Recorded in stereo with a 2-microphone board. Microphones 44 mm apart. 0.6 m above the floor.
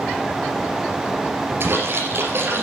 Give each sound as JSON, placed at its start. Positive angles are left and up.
{"t": 1.6, "sound": "a splash", "side_deg": -60, "distance_m": 3.0}